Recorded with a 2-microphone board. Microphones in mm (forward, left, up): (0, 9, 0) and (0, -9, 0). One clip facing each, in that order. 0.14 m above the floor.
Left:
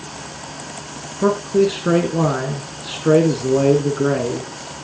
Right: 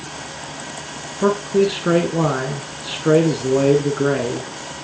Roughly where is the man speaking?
Centre.